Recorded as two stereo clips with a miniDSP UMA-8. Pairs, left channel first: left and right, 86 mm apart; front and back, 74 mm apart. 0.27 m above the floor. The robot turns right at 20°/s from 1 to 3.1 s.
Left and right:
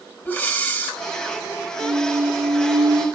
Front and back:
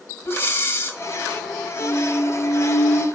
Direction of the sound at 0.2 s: 30° left.